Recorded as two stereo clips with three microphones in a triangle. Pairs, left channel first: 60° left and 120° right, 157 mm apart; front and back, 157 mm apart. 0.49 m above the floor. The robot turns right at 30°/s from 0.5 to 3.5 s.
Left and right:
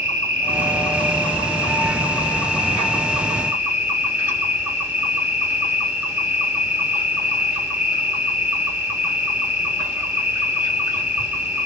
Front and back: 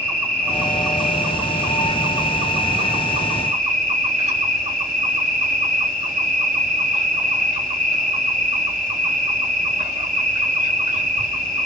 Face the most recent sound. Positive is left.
turn(degrees=165)